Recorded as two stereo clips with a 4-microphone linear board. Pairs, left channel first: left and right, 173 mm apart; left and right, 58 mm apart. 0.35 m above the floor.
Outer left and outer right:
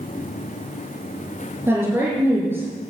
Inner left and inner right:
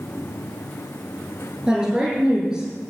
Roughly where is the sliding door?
No sliding door in this recording.